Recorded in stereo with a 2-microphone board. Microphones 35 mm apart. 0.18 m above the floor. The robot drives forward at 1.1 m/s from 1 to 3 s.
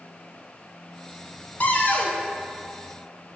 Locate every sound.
1.6 s a cupboard door: 55° left (ahead or behind), 0.6 m; by 2.2 s 35° left (ahead or behind), 0.8 m